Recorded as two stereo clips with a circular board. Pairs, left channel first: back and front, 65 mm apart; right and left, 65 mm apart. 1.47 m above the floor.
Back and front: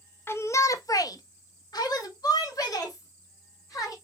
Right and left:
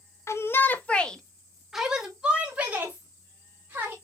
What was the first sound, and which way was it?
A shout, 125° right.